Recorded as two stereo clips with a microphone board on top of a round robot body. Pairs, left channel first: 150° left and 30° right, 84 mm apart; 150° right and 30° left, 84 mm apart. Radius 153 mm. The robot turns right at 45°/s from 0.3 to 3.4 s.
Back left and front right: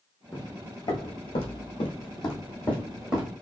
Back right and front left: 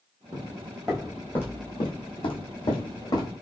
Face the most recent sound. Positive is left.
turn(degrees=-95)